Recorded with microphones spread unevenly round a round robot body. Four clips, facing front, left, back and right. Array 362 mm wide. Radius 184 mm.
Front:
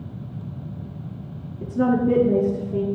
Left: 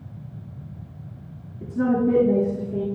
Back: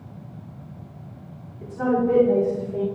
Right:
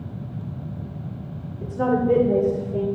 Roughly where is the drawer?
I don't hear a drawer.